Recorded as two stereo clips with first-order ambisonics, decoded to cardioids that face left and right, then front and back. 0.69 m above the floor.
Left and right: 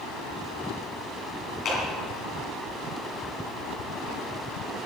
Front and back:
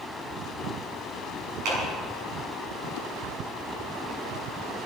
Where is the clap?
145° left, 6.5 m.